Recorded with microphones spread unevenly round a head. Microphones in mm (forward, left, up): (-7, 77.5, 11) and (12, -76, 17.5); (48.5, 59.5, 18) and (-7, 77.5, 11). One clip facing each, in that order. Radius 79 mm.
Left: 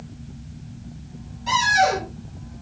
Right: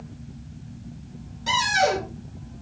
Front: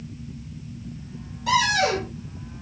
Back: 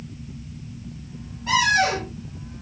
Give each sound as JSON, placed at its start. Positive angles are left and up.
{"t": 1.5, "sound": "a cupboard door", "azimuth_deg": -60, "distance_m": 5.0}